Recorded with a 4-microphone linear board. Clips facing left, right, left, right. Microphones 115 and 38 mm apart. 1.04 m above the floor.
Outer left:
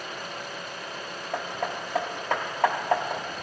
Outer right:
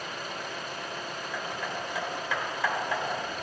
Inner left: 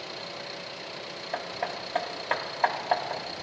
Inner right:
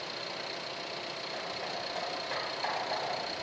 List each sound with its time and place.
1.3 s hammering: 50° left (ahead or behind), 1.0 m